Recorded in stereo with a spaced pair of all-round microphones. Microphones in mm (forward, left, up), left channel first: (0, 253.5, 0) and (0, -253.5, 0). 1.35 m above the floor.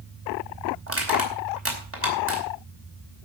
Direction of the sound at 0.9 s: 25° right (ahead or behind).